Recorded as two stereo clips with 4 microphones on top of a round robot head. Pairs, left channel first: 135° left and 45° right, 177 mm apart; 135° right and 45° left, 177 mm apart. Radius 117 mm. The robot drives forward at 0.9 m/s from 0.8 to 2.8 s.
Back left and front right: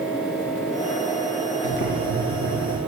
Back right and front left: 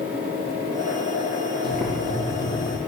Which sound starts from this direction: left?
Boiling, at 1.6 s.